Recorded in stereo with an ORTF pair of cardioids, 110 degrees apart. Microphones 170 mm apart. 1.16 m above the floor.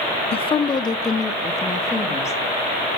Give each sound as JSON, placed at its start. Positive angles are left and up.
{"t": 0.3, "sound": "a woman speaking", "azimuth_deg": 35, "distance_m": 0.5}